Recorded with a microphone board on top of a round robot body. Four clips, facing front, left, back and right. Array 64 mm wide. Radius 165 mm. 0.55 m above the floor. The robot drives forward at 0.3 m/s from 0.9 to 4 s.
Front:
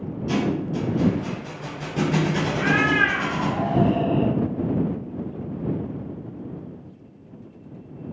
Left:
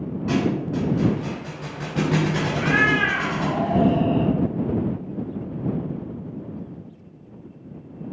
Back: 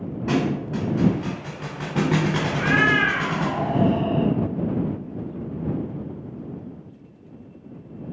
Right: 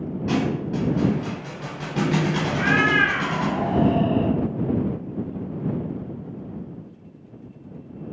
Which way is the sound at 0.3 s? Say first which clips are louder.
Left 1 dB, back 1 dB; 175° right.